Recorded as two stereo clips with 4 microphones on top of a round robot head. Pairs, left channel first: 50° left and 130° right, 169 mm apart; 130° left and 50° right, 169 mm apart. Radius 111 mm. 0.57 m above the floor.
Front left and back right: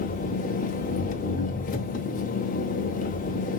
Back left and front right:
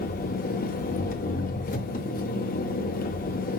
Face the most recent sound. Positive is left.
turn(degrees=90)